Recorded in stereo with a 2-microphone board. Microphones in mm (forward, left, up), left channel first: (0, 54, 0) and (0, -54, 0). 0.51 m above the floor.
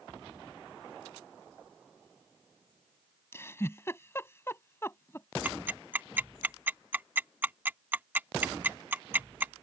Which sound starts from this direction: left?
A giggle, at 3.3 s.